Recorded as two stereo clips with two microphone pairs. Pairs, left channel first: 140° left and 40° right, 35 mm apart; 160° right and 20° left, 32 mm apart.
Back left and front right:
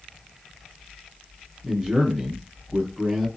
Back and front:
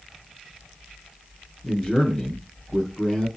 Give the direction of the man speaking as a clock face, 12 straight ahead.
4 o'clock.